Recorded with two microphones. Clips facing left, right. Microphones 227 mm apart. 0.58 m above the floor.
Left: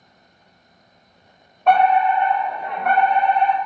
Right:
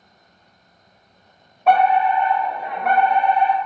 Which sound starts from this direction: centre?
A fire alarm, at 1.7 s.